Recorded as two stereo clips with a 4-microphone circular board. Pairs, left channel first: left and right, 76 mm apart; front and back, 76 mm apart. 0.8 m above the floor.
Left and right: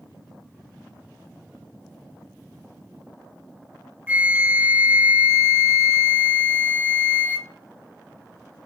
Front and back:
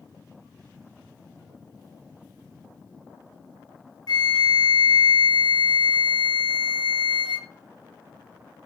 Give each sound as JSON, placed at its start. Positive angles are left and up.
{"t": 4.1, "sound": "a flute", "azimuth_deg": -20, "distance_m": 0.5}